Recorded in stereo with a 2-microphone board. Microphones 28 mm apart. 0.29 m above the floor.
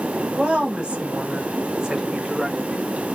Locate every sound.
0.3 s a woman speaking: 50° right (ahead or behind), 1.6 m; by 2.9 s 20° right (ahead or behind), 1.0 m